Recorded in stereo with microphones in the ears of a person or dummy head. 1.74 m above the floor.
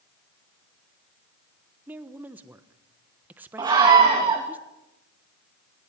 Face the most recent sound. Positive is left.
turn(degrees=-25)  # may be behind; listen again after turning